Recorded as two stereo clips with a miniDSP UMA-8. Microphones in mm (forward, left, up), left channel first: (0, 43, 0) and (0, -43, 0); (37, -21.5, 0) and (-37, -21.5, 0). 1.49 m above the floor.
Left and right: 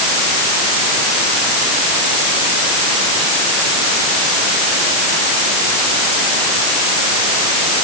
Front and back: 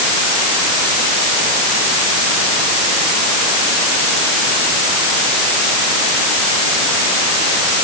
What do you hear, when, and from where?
Only background noise.